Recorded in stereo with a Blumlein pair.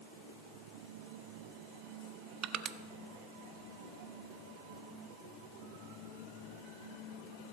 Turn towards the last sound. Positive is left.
turn(degrees=-30)